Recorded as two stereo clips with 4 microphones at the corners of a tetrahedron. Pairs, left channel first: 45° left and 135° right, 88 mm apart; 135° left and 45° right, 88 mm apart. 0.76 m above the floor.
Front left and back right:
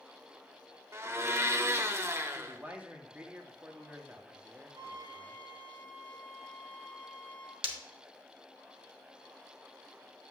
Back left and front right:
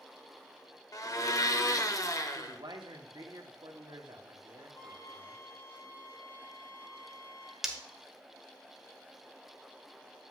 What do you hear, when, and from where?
0.9 s a blender: 175° left, 0.6 m
2.4 s a man speaking: 65° right, 1.1 m
4.8 s a flute: 175° right, 1.4 m
7.6 s breaking glass: 130° right, 1.0 m